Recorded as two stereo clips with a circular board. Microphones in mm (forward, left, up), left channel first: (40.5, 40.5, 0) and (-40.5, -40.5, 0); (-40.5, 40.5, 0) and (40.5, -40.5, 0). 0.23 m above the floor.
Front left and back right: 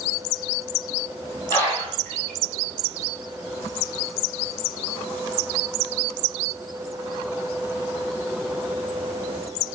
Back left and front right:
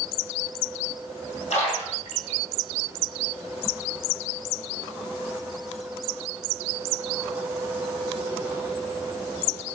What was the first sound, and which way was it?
A splash, 115° left.